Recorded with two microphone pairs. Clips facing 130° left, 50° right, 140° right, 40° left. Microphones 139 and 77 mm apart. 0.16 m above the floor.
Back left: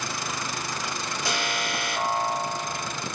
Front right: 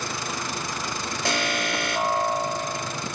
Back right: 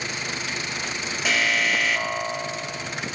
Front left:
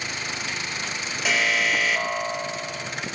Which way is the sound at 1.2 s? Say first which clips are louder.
Front right 4 dB, even; 50° right.